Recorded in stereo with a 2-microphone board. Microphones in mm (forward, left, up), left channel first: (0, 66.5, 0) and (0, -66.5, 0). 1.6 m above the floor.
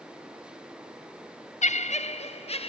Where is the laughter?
60° left (ahead or behind), 0.6 m; by 2.7 s 50° left (ahead or behind), 1.1 m.